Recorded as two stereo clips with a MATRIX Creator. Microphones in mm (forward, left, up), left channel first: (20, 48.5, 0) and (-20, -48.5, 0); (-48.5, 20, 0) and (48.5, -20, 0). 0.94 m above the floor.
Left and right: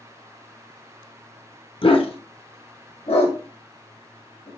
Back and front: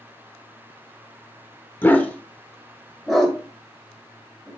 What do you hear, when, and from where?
1.8 s a dog barking: 85° left, 1.0 m; by 4.5 s 60° left, 2.5 m